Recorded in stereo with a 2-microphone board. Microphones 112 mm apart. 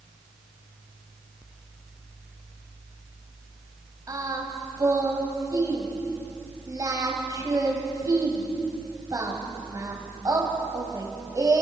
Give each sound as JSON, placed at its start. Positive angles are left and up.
{"t": 4.1, "sound": "singing", "side_deg": -35, "distance_m": 4.0}